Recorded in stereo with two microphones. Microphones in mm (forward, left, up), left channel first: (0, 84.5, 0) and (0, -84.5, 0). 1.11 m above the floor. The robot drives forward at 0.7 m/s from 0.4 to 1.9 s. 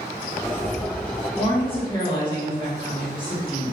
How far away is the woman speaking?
About 1.1 m.